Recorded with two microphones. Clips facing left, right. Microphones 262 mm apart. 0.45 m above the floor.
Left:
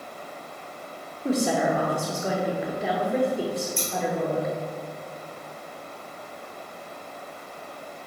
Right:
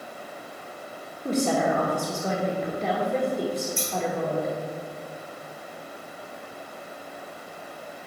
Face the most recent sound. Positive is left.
turn(degrees=-45)  # may be behind; listen again after turning